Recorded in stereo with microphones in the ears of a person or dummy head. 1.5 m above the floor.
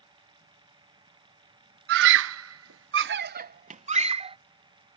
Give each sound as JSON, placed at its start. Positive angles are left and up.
{"t": 1.9, "sound": "a scream", "side_deg": -60}